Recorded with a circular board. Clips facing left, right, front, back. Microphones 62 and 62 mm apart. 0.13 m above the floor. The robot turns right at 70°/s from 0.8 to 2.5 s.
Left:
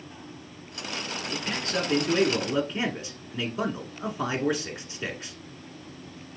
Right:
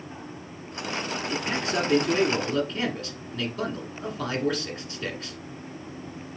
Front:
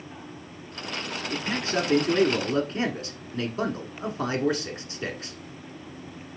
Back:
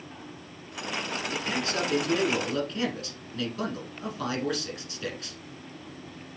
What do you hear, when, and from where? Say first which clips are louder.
1.3 s a man speaking: right 2 dB, front 4 dB; 50° right, 1.3 m; by 5.4 s 30° left, 1.3 m